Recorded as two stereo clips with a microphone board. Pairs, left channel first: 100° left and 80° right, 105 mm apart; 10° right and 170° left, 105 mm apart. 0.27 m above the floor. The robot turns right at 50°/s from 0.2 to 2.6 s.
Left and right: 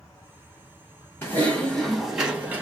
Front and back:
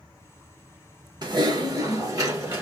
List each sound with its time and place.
1.2 s typing on a keyboard: 155° left, 1.4 m; by 2.6 s 135° right, 1.4 m